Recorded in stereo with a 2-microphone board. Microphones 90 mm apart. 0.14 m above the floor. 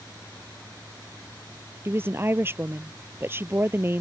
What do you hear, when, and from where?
1.9 s a woman speaking: 30° right (ahead or behind)